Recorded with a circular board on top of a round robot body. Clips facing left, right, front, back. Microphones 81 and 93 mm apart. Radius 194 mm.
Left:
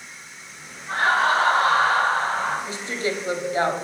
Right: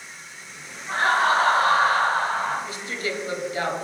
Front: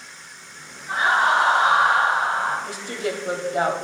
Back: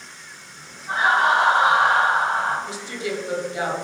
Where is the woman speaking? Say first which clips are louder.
Left 3 dB, front 1 dB; 35° left, 1.6 m.